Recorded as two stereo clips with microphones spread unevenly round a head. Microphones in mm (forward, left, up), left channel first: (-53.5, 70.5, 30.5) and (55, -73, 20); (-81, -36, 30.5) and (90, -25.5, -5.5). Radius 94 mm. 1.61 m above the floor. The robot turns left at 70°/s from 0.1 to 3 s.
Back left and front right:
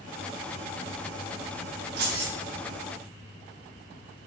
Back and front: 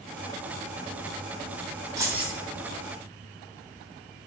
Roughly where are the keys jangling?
Right.